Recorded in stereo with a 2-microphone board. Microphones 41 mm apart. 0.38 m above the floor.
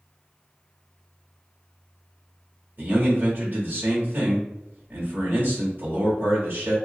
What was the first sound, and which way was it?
A man speaking, 50° right (ahead or behind).